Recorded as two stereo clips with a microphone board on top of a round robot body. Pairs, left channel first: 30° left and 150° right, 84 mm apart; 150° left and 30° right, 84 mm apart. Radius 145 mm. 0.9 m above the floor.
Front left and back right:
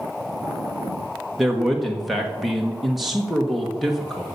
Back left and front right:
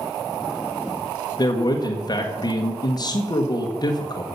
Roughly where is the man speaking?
Behind left.